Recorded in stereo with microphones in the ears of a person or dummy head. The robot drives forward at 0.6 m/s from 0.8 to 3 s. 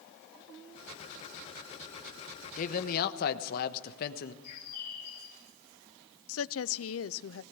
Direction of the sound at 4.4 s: 55° left (ahead or behind).